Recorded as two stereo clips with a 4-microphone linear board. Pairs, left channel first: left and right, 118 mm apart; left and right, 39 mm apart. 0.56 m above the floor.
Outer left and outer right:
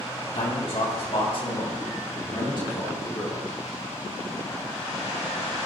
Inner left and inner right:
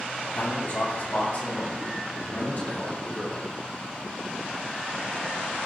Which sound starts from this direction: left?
A man speaking, at 0.3 s.